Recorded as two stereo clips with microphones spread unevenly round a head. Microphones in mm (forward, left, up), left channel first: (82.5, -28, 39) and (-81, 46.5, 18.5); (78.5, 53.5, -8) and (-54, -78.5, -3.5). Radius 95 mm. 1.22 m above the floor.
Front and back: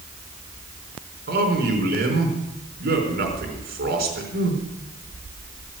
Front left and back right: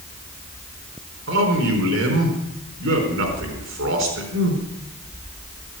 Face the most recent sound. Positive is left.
turn(degrees=-165)